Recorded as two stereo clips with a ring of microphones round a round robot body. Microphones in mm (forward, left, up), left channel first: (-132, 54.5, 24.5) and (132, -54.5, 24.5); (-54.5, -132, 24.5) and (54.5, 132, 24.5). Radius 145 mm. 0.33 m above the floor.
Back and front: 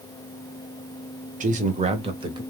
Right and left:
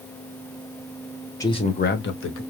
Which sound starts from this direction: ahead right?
A man speaking, at 1.4 s.